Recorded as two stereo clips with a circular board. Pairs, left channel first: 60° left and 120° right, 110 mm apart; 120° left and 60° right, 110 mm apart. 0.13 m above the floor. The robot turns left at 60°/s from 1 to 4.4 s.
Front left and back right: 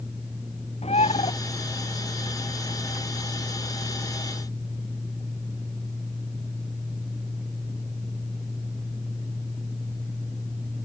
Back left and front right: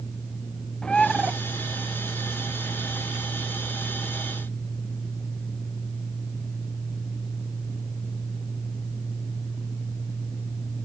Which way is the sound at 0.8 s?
40° left.